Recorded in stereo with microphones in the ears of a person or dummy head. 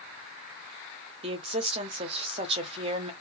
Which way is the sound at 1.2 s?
35° right (ahead or behind).